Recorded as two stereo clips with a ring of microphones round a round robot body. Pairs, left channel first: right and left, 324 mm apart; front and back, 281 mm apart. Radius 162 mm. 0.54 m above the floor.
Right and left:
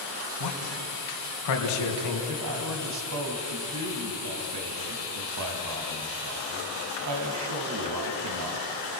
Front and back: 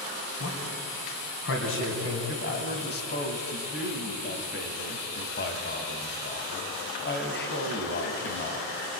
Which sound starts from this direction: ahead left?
A man speaking, at 2.3 s.